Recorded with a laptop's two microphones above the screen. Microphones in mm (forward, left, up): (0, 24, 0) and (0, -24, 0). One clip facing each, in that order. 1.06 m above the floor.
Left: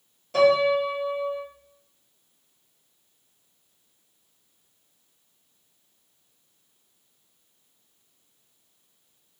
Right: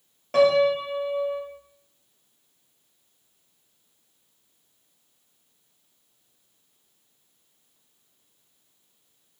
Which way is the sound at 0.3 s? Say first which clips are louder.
Even; 60° right (ahead or behind).